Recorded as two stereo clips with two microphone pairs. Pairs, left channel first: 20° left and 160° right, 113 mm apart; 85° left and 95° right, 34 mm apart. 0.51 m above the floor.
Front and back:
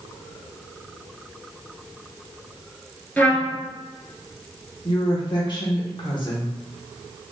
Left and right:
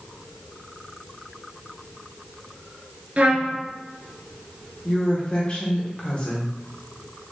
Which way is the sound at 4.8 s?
40° left.